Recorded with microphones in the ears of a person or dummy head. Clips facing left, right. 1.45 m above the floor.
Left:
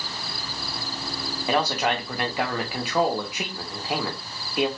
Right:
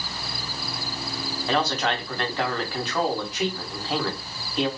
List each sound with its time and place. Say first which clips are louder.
1.5 s a man speaking: left 1 dB; 10° left (ahead or behind), 0.7 m